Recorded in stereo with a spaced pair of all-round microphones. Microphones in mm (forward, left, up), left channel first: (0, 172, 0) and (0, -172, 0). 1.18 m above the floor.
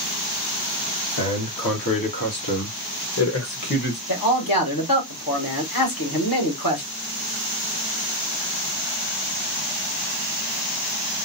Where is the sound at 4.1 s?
70° left (ahead or behind), 1.5 m.